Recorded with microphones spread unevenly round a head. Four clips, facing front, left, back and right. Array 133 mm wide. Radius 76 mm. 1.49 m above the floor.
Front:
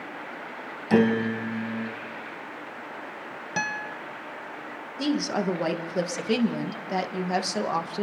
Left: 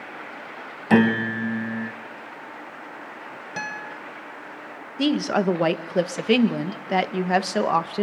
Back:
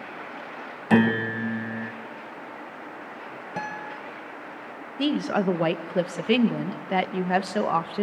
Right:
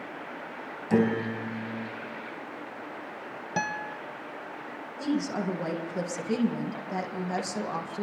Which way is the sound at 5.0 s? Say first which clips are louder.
Left 8 dB, back 2 dB; 90° left.